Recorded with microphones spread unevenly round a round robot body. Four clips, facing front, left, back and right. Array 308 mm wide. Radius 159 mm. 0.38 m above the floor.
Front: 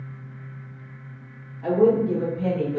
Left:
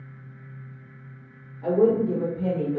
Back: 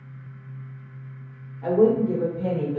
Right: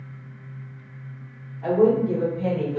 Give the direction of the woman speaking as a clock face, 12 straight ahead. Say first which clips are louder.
Right 1 dB, even; 7 o'clock.